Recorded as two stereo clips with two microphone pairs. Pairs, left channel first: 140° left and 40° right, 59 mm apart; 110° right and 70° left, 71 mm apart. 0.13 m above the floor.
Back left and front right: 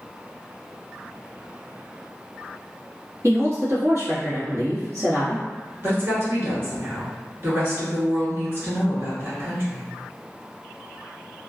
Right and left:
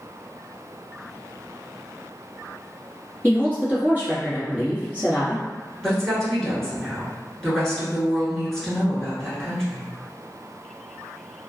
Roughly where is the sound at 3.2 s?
Ahead right.